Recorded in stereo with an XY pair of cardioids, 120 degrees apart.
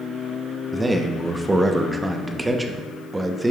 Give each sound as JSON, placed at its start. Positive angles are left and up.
{"t": 0.7, "sound": "a man speaking", "azimuth_deg": -10, "distance_m": 0.8}